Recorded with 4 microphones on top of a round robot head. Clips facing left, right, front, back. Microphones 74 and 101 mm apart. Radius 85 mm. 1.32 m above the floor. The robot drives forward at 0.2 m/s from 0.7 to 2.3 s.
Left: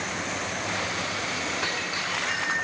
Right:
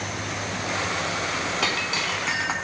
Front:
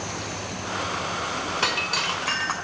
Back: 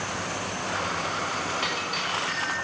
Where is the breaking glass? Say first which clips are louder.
Right 3 dB, front 3 dB; 60° right, 3 m; by 2.5 s 65° right, 3 m.